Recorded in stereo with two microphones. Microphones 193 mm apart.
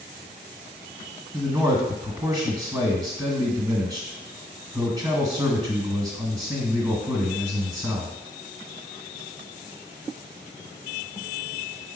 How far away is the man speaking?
About 1.4 m.